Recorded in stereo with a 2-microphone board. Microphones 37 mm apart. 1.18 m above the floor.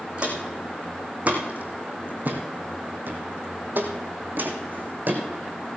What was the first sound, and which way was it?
Footsteps, 30° right (ahead or behind).